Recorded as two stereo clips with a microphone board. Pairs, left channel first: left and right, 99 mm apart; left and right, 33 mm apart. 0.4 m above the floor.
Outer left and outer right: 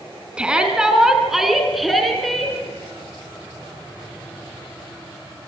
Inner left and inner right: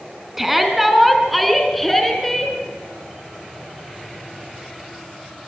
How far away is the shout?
About 4 m.